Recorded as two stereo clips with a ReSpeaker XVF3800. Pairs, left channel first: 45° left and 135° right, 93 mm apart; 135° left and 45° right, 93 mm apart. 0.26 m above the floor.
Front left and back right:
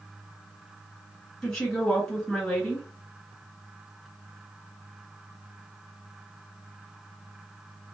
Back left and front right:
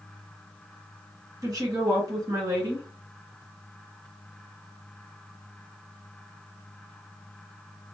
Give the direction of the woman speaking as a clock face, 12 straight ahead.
1 o'clock.